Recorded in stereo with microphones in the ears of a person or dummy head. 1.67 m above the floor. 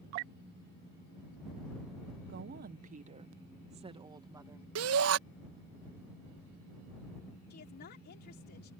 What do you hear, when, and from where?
2.3 s a woman speaking: 60° right (ahead or behind); by 4.7 s 20° right (ahead or behind)
4.8 s a shout: 85° right
7.5 s a woman speaking: 55° left (ahead or behind)